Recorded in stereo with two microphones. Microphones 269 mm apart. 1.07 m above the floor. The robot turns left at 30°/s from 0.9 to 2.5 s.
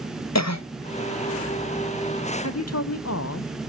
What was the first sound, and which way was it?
A cough, 75° left (ahead or behind).